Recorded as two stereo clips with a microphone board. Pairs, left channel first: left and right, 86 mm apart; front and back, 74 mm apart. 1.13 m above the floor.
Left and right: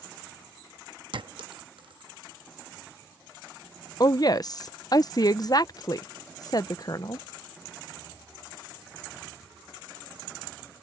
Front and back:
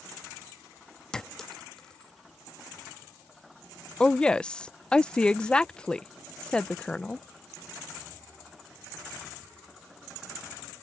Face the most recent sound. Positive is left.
turn(degrees=75)